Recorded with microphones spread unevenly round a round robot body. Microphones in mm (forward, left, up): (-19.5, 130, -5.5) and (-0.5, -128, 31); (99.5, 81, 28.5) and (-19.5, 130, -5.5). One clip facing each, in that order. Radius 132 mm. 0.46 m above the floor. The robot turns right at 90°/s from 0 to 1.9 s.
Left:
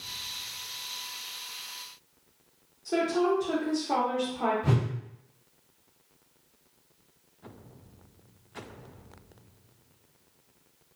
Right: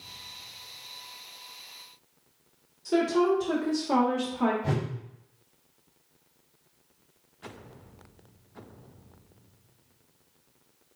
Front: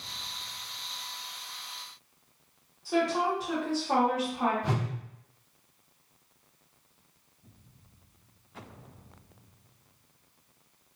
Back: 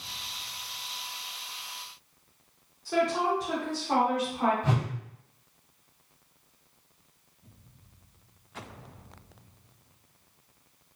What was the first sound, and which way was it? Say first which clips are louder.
A woman speaking: right 3 dB, back 1 dB; 130° right.